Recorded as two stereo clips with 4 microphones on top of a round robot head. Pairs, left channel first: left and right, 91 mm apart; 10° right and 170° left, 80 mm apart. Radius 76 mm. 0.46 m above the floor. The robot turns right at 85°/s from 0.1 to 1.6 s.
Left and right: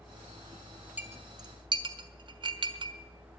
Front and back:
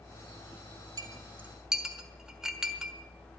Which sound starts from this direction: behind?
A clink, at 1.0 s.